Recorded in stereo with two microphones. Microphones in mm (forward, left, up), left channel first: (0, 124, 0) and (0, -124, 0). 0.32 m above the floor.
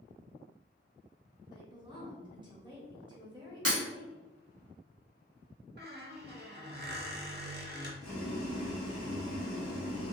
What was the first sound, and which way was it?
A woman speaking, 20° right (ahead or behind).